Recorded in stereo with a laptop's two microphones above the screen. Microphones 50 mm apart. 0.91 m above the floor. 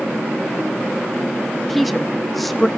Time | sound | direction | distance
1.7 | a woman speaking | centre (ahead or behind) | 1.3 m